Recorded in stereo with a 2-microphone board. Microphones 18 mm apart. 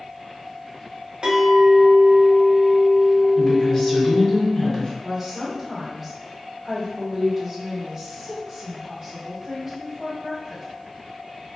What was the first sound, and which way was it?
A clink, 65° right (ahead or behind).